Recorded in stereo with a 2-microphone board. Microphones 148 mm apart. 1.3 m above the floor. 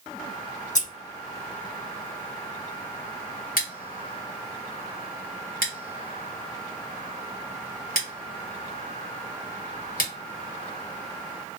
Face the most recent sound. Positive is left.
turn(degrees=75)  # may be behind; listen again after turning